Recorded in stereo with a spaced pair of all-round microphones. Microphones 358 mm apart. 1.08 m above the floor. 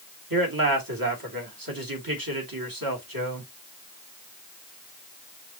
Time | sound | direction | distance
0.3 | a man speaking | 70° right (ahead or behind) | 2 m